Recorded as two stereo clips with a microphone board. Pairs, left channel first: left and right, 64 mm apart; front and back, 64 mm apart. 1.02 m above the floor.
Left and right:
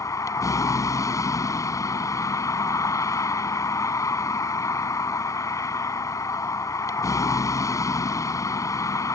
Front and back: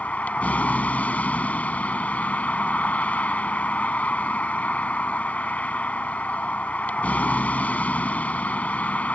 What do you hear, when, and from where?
0.0 s a vehicle: 65° left